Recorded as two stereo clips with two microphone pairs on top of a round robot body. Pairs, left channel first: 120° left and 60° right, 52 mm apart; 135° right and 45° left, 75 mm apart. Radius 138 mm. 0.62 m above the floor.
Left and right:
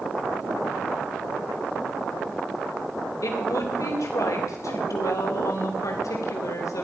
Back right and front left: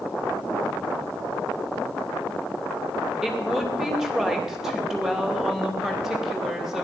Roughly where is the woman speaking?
Behind left.